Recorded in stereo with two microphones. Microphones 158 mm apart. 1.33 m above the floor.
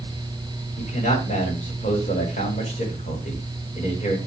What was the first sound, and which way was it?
A man speaking, 50° left (ahead or behind).